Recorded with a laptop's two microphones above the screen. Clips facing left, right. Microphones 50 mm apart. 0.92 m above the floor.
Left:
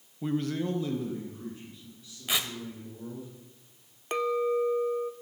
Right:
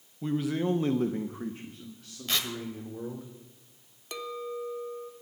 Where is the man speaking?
10° left (ahead or behind), 0.8 m; by 3.3 s 70° right (ahead or behind), 2.5 m.